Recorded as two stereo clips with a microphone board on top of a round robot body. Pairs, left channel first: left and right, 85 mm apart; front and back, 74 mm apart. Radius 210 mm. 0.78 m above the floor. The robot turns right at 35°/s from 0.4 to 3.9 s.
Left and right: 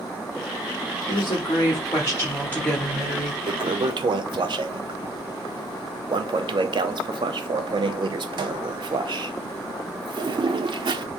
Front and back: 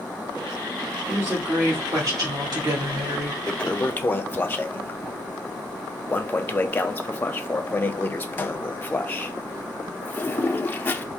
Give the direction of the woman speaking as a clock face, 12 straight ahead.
8 o'clock.